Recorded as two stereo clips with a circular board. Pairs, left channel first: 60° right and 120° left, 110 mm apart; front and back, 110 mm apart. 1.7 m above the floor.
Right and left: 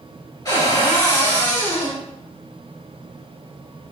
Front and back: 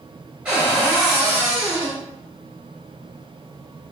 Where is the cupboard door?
105° right, 1.8 m.